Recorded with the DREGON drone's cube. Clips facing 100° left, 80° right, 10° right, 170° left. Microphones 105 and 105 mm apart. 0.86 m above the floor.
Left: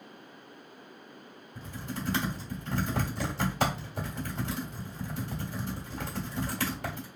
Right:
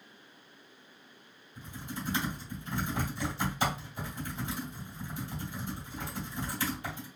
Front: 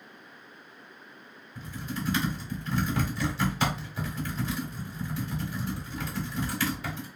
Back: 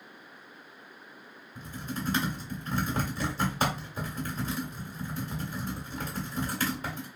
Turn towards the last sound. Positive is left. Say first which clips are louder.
# left 3 dB, front 1 dB
turn(degrees=120)